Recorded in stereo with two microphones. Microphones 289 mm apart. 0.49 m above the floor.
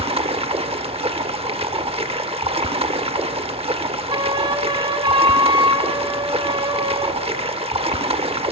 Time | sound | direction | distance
0.0 | running water | 20° right (ahead or behind) | 0.8 m
4.1 | a flute | 15° right (ahead or behind) | 0.7 m